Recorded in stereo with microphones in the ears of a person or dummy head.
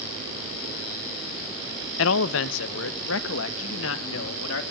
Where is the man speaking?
70° left (ahead or behind), 0.9 m; by 4.6 s 65° left (ahead or behind), 2.5 m.